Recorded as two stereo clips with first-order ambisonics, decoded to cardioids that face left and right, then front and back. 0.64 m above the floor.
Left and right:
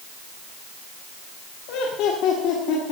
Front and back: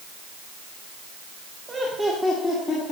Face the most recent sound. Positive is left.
turn(degrees=55)